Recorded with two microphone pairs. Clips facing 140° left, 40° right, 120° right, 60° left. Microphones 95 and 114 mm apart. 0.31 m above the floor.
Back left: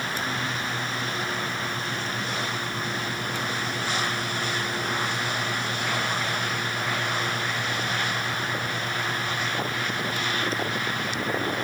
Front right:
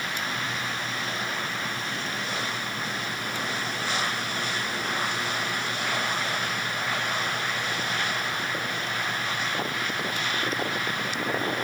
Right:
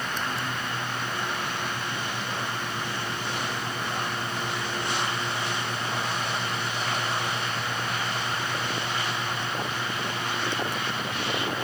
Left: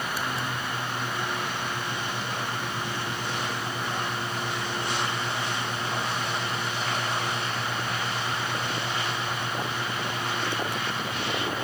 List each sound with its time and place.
Only background noise.